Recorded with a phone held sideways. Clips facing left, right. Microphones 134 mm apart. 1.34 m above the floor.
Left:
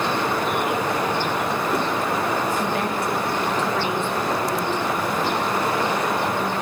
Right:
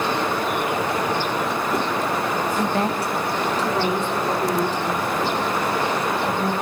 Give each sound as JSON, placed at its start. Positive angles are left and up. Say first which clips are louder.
{"t": 2.6, "sound": "a woman speaking", "louder": "right 2 dB", "side_deg": -30, "distance_m": 2.0}